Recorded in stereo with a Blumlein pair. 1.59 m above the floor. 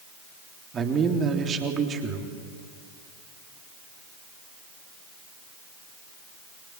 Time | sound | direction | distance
0.7 | a man speaking | 25° right | 3.5 m